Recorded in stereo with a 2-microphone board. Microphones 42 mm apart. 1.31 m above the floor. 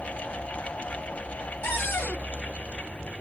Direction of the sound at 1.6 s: 65° left (ahead or behind).